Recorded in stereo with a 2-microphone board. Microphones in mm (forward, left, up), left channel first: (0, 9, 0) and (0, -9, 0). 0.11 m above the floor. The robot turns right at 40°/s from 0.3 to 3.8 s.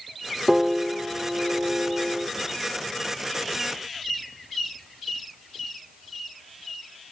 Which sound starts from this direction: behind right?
A piano, at 0.5 s.